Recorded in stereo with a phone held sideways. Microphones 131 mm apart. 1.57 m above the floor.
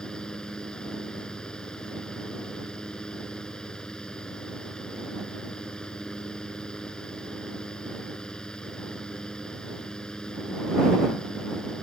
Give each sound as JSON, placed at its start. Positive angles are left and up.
{"t": 0.0, "sound": "a fan", "side_deg": 5}